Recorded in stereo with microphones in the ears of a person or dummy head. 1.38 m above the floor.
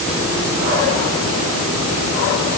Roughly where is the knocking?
No knocking in this recording.